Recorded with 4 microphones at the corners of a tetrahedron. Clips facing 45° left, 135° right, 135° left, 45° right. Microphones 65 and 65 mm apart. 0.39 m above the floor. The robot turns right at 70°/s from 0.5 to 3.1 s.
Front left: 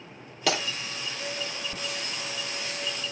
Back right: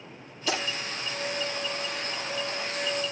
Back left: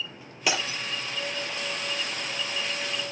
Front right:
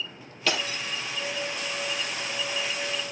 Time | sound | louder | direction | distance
0.5 | breaking glass | front left 2 dB, even | 60° left | 4 m